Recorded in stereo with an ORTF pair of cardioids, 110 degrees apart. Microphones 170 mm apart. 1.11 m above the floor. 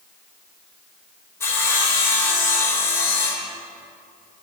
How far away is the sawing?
About 5 m.